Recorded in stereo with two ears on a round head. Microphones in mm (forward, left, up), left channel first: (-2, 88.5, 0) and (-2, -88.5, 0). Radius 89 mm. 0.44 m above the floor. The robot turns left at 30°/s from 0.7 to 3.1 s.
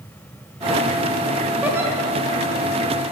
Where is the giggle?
5° right (ahead or behind), 2.5 m; by 1.9 s 15° right (ahead or behind), 2.5 m.